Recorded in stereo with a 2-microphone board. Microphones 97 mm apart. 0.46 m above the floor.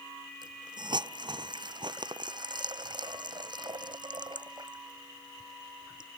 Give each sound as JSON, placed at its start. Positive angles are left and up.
{"t": 0.4, "sound": "a hiss", "side_deg": -50}